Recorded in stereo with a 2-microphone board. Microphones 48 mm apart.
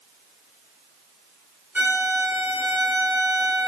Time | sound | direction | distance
1.8 | a violin | 35° right (ahead or behind) | 1.4 m